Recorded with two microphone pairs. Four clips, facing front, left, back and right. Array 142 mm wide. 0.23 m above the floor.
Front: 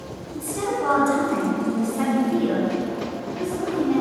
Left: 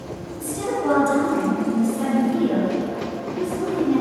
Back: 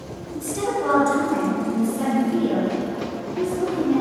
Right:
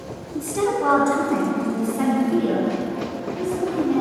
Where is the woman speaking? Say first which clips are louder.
Right 4 dB, back 1 dB; 95° right, 2 m; by 4.0 s 5° right, 3.5 m.